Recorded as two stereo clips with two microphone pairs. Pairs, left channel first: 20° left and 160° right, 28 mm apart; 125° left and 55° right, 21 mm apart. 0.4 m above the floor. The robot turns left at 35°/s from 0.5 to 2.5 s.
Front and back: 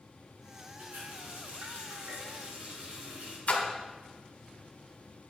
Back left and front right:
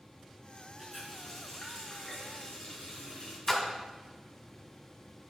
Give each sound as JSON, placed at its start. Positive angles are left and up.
{"t": 0.8, "sound": "a running tap", "azimuth_deg": -135, "distance_m": 3.5}
{"t": 3.5, "sound": "a splash", "azimuth_deg": 55, "distance_m": 1.7}